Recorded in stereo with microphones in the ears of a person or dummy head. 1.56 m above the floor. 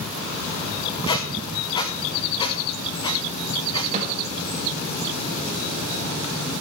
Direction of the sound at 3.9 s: 45° right (ahead or behind).